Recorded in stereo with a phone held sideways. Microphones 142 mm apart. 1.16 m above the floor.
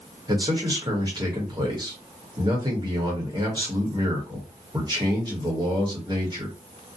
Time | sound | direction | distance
0.3 | a man speaking | 30° right (ahead or behind) | 1.0 m